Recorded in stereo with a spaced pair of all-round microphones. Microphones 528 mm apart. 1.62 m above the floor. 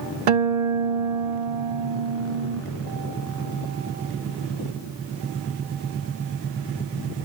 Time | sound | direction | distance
0.3 | a guitar | 80° right | 0.6 m